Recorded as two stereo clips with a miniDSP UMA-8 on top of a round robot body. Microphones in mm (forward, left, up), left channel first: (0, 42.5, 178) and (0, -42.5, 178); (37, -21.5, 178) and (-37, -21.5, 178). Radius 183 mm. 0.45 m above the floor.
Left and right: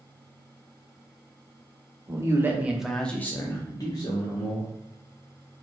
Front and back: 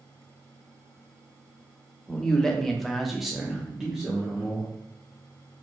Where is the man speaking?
75° right, 0.9 m; by 4.7 s 100° left, 1.3 m.